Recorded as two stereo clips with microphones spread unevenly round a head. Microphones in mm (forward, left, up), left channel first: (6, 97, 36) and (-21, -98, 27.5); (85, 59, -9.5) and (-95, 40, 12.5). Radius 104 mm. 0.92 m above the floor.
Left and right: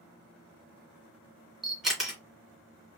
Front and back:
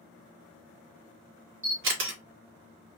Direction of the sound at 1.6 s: 175° left.